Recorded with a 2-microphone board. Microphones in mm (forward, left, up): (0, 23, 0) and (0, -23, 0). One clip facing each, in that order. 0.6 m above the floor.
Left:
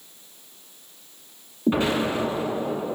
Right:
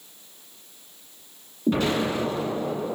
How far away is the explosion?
About 1.3 m.